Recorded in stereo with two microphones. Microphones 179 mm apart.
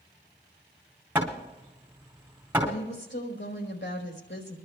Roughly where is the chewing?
No chewing in this recording.